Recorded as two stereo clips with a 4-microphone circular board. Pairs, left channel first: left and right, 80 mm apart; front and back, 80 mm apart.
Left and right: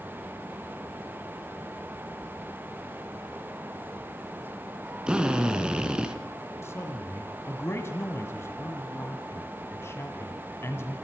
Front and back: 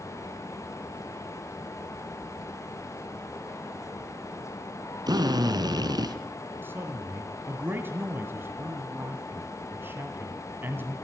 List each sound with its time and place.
5.1 s a drill: 170° right, 2.5 m
6.6 s a man speaking: 130° left, 2.0 m